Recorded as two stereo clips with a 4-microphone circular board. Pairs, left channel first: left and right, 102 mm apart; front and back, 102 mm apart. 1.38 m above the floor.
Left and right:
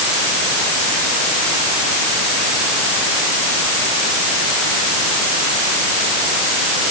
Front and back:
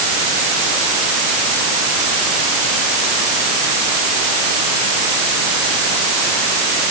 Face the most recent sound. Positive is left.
No sound to turn to.